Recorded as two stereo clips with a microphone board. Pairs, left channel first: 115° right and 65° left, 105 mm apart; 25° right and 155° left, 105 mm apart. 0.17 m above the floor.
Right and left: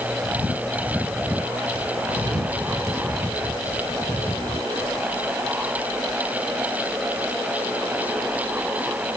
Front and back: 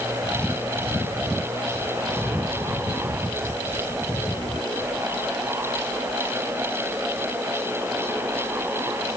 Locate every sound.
Only background noise.